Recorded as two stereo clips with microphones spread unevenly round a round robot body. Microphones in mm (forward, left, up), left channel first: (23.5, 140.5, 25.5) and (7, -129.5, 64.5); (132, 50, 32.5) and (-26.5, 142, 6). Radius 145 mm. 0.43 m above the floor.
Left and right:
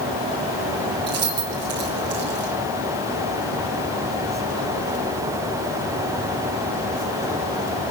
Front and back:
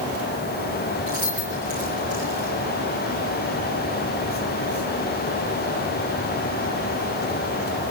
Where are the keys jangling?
150° right, 4 m; by 2.5 s 145° right, 5 m.